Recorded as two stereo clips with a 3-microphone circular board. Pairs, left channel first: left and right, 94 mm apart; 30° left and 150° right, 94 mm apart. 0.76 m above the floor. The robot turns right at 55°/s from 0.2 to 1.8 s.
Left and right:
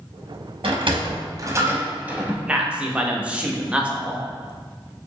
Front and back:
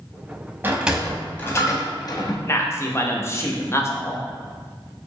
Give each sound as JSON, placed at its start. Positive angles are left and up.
{"t": 0.6, "sound": "a sliding door", "azimuth_deg": -80, "distance_m": 0.6}
{"t": 2.5, "sound": "a man speaking", "azimuth_deg": -20, "distance_m": 0.5}